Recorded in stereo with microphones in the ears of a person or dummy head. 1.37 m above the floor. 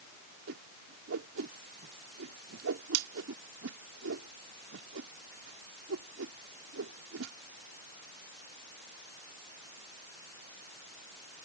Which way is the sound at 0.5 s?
85° right.